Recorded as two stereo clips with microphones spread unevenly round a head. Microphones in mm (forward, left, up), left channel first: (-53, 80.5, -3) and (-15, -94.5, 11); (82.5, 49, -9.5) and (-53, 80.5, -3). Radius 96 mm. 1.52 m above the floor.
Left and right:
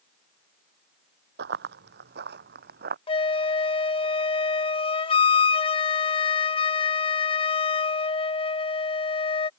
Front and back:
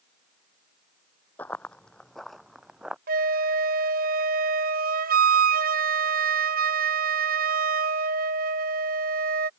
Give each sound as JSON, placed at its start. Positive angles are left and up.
{"t": 1.4, "sound": "running footsteps", "azimuth_deg": -95}
{"t": 3.1, "sound": "a flute", "azimuth_deg": 165}